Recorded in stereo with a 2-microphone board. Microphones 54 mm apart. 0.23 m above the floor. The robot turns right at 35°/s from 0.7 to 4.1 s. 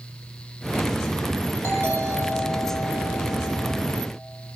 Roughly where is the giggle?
No giggle in this recording.